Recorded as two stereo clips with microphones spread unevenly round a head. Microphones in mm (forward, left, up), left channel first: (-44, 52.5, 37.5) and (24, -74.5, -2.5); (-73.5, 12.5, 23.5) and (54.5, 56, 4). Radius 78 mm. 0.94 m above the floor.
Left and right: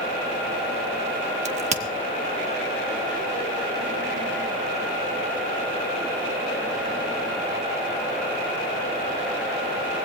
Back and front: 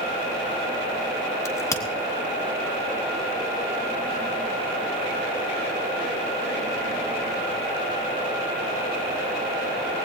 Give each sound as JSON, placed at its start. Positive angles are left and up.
{"t": 1.4, "sound": "a crack", "azimuth_deg": -90, "distance_m": 1.5}